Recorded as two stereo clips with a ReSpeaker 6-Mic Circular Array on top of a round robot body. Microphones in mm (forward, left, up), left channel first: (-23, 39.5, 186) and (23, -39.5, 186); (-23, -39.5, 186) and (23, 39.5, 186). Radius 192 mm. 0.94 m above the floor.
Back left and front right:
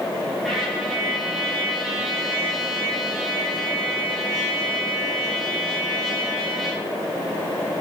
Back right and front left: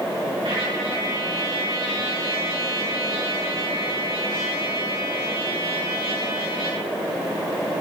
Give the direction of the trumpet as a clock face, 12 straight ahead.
11 o'clock.